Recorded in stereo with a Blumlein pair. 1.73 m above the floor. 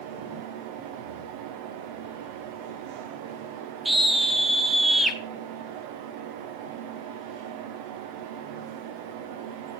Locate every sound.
0.0 s a fan: 45° right, 1.2 m
3.9 s a scream: 5° right, 2 m